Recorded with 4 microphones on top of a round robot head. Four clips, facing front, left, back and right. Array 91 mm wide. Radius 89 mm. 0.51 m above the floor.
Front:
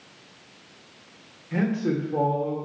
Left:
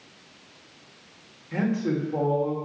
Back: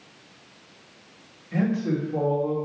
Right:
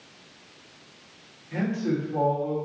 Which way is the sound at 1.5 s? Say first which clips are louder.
Left 1 dB, even; 30° left.